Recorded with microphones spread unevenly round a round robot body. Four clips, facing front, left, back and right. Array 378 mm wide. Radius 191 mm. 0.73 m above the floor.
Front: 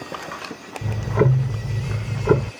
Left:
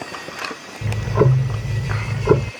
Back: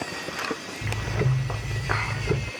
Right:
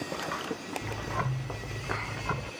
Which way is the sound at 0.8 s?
55° left.